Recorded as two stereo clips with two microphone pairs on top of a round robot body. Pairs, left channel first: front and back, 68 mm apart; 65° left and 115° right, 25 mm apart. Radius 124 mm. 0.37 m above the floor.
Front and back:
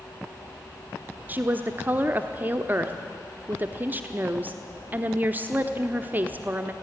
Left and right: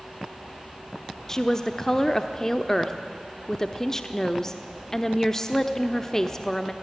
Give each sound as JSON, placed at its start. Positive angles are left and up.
{"t": 1.3, "sound": "a woman speaking", "azimuth_deg": 140, "distance_m": 1.2}